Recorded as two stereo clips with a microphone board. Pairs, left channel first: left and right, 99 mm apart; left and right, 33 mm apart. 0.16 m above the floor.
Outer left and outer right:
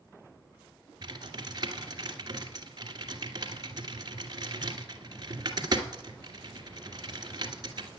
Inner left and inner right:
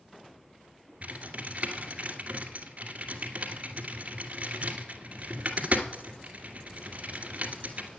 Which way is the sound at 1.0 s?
45° right (ahead or behind).